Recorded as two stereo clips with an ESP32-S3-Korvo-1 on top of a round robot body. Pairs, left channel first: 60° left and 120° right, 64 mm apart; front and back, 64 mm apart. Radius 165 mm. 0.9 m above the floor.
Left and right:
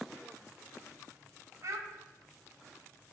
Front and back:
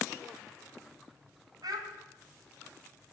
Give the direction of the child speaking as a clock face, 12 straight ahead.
5 o'clock.